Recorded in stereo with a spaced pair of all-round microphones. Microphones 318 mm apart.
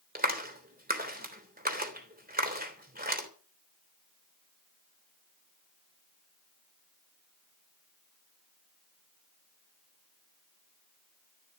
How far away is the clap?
About 3.5 m.